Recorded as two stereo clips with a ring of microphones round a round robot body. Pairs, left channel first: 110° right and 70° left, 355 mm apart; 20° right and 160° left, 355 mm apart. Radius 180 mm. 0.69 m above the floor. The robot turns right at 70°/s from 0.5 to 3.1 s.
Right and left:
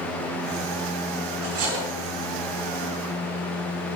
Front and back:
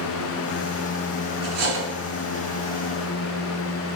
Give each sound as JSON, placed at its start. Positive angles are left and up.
{"t": 1.4, "sound": "cutlery clinking", "azimuth_deg": 85, "distance_m": 4.0}